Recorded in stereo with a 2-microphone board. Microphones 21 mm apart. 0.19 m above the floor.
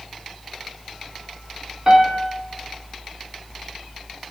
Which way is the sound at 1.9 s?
30° right (ahead or behind).